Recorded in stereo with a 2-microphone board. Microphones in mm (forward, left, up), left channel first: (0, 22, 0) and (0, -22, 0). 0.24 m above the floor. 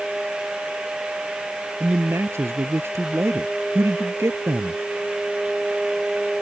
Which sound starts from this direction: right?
A man speaking, at 1.8 s.